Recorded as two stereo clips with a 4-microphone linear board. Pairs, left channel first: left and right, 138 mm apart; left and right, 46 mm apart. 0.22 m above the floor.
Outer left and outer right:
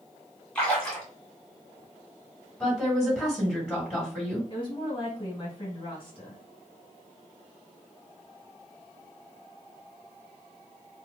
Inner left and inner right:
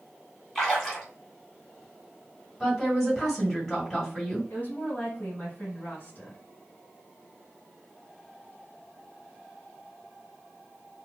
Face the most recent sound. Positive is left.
turn(degrees=35)  # may be behind; listen again after turning